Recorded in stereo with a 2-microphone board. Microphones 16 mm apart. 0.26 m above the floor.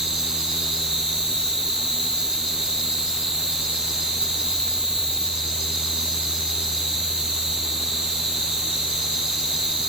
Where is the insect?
50° right (ahead or behind), 6 m.